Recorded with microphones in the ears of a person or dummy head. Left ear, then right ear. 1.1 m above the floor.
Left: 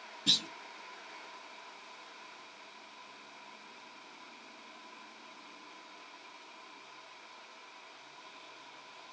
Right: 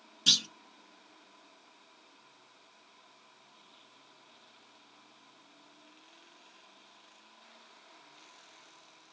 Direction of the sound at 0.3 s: 55° right (ahead or behind).